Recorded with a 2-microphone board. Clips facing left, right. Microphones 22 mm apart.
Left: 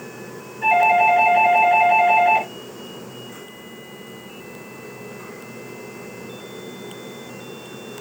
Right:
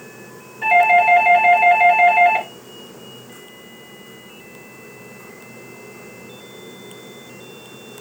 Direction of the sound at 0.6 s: 20° right (ahead or behind).